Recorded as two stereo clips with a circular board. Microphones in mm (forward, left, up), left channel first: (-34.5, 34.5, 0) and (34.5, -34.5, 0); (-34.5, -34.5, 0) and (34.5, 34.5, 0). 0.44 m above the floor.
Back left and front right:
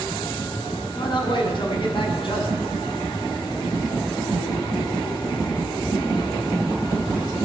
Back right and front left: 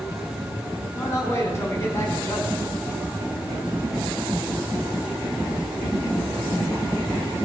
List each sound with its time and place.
0.9 s a man speaking: 165° left, 4.5 m